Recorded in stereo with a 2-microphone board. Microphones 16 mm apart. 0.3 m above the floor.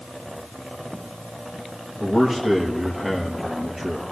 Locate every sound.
2.0 s a man speaking: 30° right (ahead or behind), 5.5 m